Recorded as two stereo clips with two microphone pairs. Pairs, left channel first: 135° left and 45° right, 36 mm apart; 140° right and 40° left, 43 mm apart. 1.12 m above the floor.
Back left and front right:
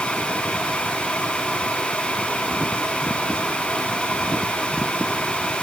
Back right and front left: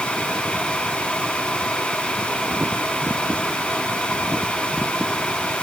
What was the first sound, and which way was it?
Only background noise.